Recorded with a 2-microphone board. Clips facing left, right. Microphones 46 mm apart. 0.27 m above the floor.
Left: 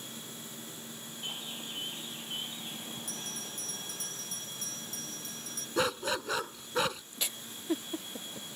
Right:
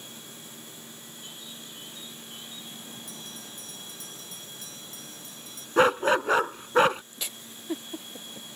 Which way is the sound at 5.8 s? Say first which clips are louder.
Right 10 dB; 40° right (ahead or behind).